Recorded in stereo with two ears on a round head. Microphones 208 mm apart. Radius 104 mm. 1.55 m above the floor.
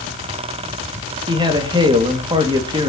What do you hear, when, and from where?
1.3 s a man speaking: 20° right (ahead or behind), 2.5 m